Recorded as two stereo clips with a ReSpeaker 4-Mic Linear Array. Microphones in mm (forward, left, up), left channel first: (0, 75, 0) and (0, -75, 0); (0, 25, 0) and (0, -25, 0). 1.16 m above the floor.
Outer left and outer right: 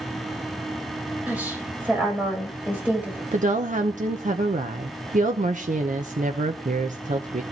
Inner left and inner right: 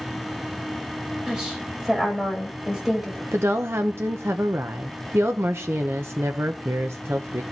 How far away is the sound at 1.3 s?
About 6 m.